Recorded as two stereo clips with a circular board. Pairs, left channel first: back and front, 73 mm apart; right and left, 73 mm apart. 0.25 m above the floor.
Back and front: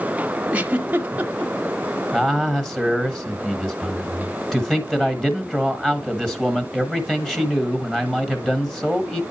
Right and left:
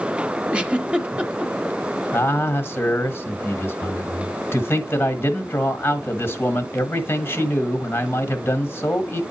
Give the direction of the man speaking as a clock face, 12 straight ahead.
3 o'clock.